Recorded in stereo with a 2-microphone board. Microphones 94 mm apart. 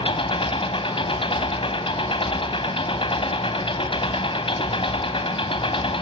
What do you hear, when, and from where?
0.0 s an engine running: 70° left (ahead or behind), 3 m